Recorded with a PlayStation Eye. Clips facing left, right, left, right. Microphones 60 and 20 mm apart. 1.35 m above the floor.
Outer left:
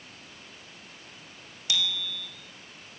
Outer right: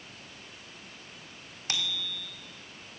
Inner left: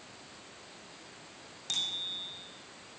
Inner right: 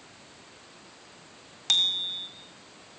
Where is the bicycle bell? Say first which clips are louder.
Outer left 3 dB, inner right 9 dB; 45° right (ahead or behind), 3 m.